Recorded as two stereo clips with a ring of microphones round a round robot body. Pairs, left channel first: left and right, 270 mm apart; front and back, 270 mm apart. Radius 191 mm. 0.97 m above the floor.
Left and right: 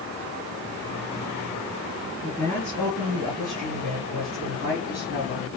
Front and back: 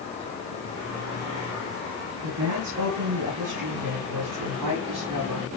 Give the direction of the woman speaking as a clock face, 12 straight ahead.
6 o'clock.